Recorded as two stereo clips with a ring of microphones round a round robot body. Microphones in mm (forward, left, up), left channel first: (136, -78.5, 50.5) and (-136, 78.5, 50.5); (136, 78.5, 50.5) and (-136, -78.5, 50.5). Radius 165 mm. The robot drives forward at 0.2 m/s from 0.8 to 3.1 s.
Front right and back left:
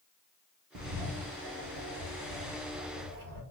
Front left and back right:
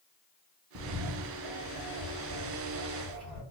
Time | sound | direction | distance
0.8 | a bird | 175° left | 0.7 m